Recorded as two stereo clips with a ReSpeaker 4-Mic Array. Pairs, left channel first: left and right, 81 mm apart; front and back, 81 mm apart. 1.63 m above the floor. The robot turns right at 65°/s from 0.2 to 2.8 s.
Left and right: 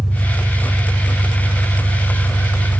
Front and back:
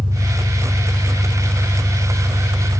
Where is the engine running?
170° right, 2.5 m; by 2.8 s 5° right, 2.5 m.